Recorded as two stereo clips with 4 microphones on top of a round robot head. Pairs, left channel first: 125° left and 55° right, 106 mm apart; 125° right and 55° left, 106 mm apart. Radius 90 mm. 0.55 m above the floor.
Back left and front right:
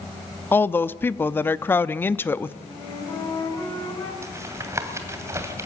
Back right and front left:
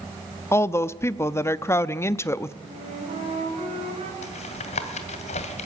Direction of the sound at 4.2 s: 120° right.